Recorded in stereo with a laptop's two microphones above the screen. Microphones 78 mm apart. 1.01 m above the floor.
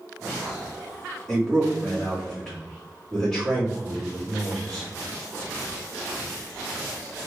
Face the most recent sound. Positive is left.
turn(degrees=10)  # may be behind; listen again after turning